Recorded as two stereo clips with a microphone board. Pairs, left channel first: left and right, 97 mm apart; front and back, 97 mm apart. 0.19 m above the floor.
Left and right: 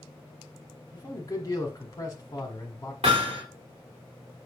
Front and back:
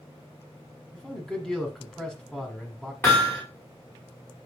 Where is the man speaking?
75° left, 1.5 m.